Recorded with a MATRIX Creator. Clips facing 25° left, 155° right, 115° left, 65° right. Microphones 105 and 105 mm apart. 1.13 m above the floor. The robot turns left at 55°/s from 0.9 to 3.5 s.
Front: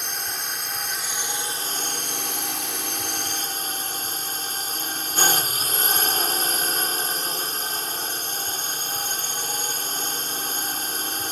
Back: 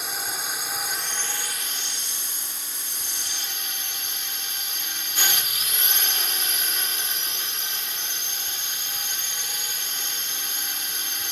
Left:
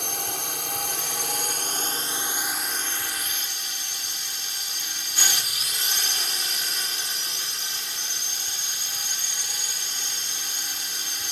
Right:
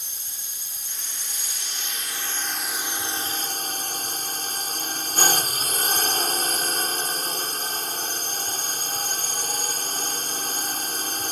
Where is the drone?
115° left; by 11.3 s 25° right.